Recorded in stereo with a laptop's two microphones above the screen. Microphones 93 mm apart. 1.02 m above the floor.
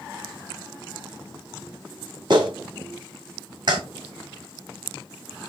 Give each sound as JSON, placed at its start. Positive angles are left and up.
{"t": 2.3, "sound": "a clap", "side_deg": -55, "distance_m": 2.0}